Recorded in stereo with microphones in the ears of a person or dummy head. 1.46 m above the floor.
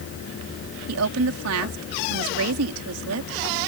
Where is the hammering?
I don't hear hammering.